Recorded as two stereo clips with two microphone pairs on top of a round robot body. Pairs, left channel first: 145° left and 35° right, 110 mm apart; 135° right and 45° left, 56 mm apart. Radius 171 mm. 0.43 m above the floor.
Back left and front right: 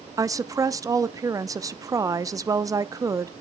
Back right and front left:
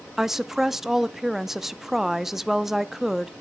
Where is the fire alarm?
I don't hear a fire alarm.